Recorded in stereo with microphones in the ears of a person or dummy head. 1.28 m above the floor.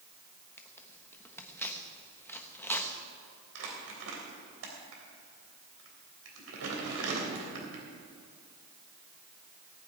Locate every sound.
0.6 s tearing paper: 10° left (ahead or behind), 1.1 m
3.5 s crumpling: 80° right, 3 m